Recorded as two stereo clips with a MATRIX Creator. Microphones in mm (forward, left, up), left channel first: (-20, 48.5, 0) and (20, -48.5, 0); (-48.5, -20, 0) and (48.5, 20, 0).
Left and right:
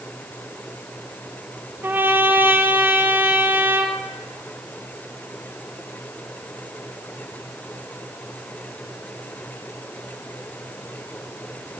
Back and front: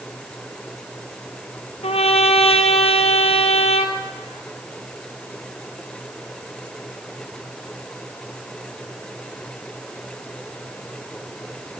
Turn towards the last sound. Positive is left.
turn(degrees=-140)